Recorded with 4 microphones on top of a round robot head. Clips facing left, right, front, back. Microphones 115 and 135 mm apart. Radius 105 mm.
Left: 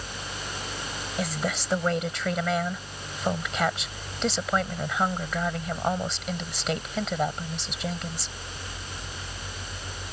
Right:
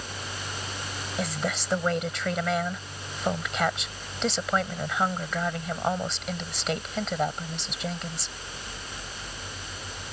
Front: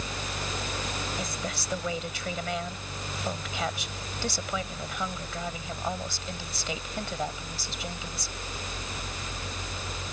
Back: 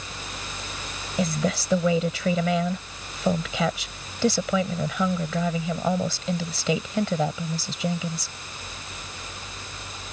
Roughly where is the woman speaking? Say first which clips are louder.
Left 1 dB, back 9 dB; behind.